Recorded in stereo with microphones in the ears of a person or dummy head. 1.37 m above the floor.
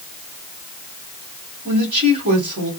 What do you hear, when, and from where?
1.6 s a woman speaking: 45° right (ahead or behind), 1.5 m